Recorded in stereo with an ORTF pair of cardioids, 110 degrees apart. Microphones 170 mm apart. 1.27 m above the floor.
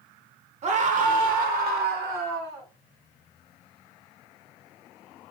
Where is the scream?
45° right, 1.0 m; by 2.7 s 75° right, 1.8 m.